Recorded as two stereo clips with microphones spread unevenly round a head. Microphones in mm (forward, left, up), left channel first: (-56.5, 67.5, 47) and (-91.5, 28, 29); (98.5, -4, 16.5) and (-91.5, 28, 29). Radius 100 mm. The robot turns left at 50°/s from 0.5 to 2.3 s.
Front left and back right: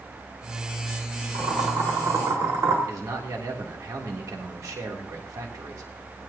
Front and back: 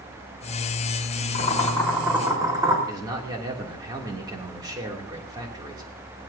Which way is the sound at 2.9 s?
120° right.